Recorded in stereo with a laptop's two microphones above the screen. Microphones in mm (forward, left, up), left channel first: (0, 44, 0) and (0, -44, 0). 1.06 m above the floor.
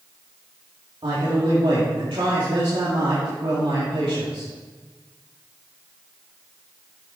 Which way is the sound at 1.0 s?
75° right (ahead or behind).